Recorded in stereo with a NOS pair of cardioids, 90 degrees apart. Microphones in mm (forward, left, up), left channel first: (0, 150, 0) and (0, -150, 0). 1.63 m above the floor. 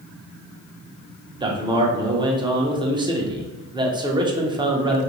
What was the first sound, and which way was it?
A man speaking, 15° right.